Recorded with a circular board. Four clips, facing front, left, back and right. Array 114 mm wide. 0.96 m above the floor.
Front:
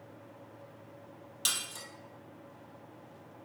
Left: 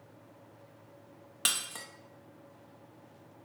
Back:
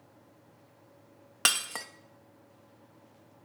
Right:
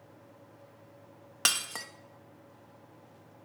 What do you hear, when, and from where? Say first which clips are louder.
1.4 s breaking glass: right 4 dB, back 9 dB; 155° right, 0.5 m